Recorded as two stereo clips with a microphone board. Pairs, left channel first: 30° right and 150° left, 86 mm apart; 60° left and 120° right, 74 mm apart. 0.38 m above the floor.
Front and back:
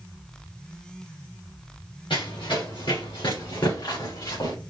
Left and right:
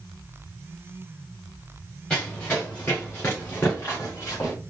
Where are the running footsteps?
10° right, 3 m; by 4.5 s 10° left, 3.5 m.